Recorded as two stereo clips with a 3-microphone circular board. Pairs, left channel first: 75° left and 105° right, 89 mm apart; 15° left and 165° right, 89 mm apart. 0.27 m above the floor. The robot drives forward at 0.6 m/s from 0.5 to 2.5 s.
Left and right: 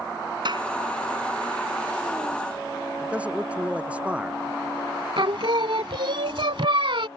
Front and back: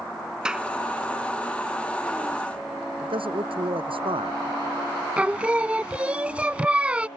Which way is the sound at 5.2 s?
90° right.